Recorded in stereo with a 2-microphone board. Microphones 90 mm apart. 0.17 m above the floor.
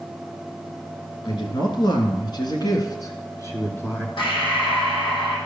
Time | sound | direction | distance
1.2 | a woman speaking | 60° left (ahead or behind) | 2.5 m
4.2 | breathing | 65° left (ahead or behind) | 4 m